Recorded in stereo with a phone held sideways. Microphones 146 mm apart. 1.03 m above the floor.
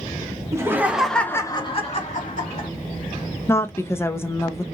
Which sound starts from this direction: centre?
A woman speaking, at 3.5 s.